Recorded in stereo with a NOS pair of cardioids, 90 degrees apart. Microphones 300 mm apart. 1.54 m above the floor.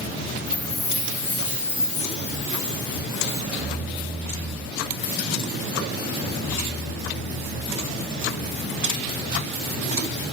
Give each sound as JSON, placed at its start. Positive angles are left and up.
{"t": 0.5, "sound": "a chime", "azimuth_deg": 40, "distance_m": 2.0}